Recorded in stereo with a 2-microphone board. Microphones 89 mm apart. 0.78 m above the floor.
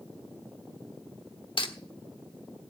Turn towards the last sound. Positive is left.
turn(degrees=65)  # may be behind; listen again after turning